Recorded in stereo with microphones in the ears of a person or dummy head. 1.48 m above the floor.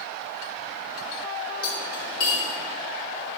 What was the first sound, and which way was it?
Cutlery clinking, 55° left (ahead or behind).